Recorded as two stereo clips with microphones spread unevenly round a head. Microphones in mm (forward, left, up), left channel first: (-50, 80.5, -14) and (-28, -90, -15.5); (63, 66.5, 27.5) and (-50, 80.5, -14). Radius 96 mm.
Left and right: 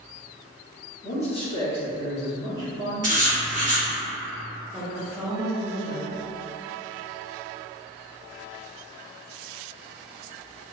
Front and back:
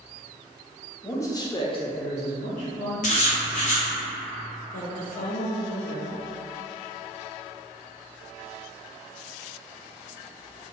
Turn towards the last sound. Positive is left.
turn(degrees=0)